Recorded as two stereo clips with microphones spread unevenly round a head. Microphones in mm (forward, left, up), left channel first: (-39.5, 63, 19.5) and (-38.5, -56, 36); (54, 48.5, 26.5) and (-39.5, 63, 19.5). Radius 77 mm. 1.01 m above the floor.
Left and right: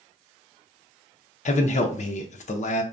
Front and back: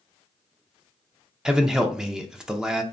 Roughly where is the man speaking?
Left.